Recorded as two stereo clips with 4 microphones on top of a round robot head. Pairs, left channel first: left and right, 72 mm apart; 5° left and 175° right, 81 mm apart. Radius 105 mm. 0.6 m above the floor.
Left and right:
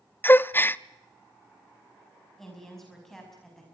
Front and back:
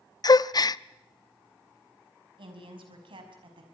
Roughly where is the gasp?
Ahead left.